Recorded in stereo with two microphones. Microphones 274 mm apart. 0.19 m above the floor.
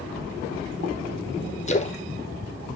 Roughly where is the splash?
Left.